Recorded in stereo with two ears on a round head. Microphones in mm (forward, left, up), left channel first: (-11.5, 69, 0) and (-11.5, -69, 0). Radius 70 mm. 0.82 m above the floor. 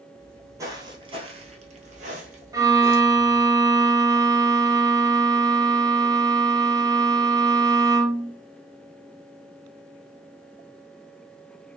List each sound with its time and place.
0.2 s footsteps: 15° right (ahead or behind), 1.2 m; by 3.4 s 45° right (ahead or behind), 1.7 m
2.5 s a violin: 20° right (ahead or behind), 0.6 m